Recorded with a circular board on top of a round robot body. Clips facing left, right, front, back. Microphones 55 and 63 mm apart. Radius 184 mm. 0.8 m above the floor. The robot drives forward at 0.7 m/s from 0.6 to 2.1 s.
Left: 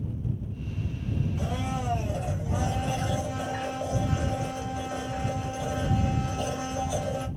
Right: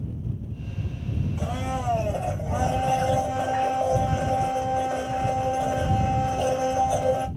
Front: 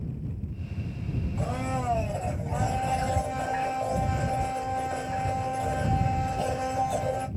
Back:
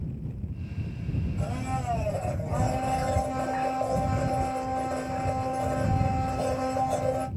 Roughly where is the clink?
No clink in this recording.